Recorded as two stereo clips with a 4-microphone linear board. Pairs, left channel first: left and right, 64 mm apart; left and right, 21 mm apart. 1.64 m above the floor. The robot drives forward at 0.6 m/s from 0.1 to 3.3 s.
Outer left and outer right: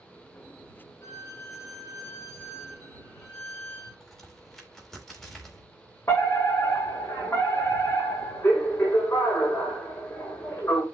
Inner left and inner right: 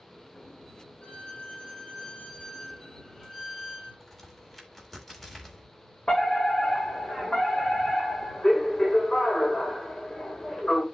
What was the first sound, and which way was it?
A violin, 45° left (ahead or behind).